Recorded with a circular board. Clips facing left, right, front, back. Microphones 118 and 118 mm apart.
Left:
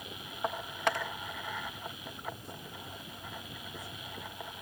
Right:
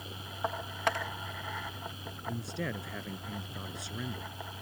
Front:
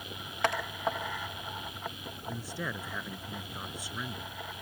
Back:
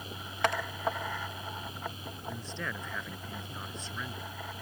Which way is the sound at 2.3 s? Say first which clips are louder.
Right 9 dB, front 2 dB; 80° right.